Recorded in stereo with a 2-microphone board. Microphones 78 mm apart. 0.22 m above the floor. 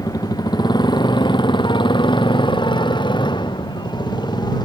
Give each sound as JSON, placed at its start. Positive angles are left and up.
{"t": 0.0, "sound": "a motorcycle", "side_deg": 55}